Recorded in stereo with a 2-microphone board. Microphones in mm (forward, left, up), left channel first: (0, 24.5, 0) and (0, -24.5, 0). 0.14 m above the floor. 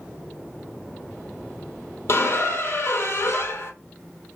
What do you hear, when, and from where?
2.1 s a squeak: 55° left (ahead or behind), 0.5 m